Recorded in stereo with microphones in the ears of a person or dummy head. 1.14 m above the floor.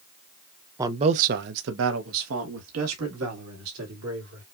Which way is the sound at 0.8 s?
15° right (ahead or behind).